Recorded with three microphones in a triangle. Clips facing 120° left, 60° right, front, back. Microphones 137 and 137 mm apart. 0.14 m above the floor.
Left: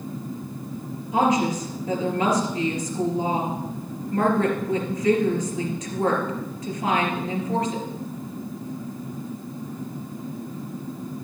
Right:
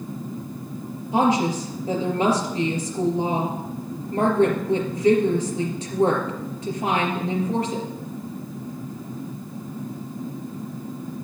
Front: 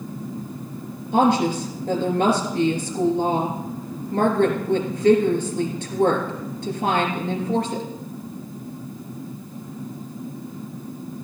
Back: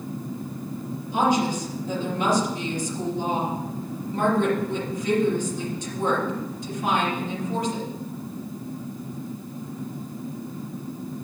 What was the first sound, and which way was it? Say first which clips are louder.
A woman speaking: right 1 dB, front 4 dB; 5° right.